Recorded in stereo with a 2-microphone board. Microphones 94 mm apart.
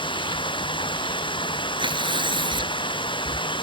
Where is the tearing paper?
60° right (ahead or behind).